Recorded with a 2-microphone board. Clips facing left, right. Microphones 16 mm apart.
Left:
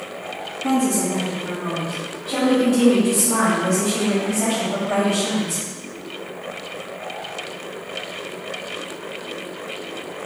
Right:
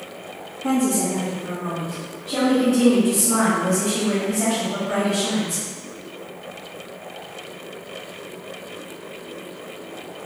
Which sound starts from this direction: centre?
A woman speaking, at 0.6 s.